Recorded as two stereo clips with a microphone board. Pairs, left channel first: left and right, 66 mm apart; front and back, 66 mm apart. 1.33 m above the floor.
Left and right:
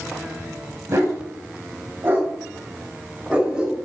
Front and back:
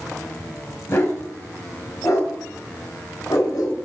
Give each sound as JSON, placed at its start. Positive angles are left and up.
{"t": 0.9, "sound": "a dog barking", "azimuth_deg": -45, "distance_m": 4.0}